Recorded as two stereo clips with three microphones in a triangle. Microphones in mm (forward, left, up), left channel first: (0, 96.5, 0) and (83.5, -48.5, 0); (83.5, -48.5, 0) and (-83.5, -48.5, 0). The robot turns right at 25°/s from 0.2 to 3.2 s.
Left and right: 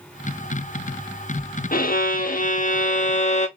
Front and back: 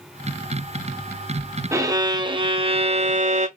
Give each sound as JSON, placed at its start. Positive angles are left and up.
{"t": 1.7, "sound": "a violin", "azimuth_deg": 110, "distance_m": 0.5}